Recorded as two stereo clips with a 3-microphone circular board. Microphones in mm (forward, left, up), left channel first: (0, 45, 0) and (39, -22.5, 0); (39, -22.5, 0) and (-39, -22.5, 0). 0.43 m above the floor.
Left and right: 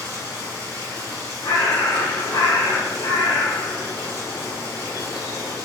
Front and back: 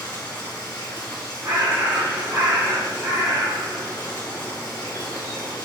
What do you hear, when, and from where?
0.0 s running water: 30° right, 2 m
1.4 s a bird: 145° left, 1.6 m